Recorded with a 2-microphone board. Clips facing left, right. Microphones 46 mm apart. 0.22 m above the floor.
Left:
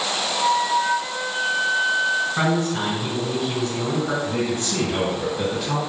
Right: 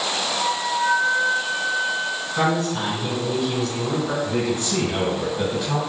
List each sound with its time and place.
0.3 s a flute: 25° left (ahead or behind), 1.7 m
2.4 s a man speaking: 25° left (ahead or behind), 1.8 m
4.2 s a man speaking: 5° right (ahead or behind), 1.5 m